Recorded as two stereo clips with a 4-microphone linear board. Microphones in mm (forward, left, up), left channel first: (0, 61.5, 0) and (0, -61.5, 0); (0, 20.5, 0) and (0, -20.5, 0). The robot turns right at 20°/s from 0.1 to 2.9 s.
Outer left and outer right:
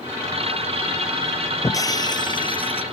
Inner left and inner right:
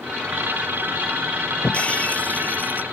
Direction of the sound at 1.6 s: 25° left (ahead or behind).